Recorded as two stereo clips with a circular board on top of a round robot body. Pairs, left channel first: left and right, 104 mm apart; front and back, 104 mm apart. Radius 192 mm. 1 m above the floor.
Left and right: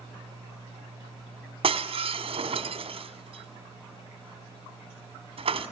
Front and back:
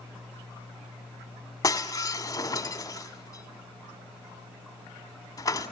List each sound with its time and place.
1.6 s breaking glass: 55° right, 2 m